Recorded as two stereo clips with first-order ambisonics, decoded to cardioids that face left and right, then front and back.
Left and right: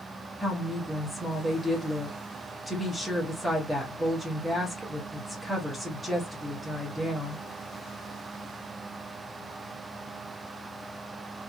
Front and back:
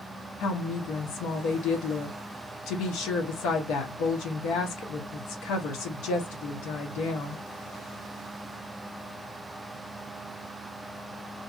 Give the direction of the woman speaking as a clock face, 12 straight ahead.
12 o'clock.